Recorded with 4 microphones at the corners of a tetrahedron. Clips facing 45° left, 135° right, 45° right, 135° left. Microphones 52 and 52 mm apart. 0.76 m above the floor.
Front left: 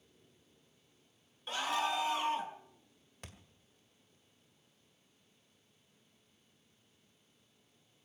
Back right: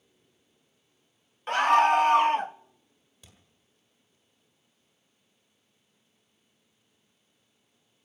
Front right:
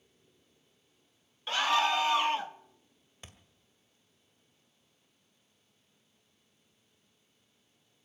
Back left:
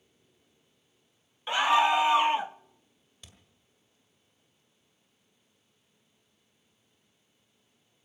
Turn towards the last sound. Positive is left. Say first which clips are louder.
# front left 6 dB, front right 3 dB
turn(degrees=10)